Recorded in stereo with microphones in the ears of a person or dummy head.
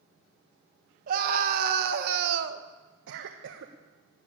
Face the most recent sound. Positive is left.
turn(degrees=-75)  # may be behind; listen again after turning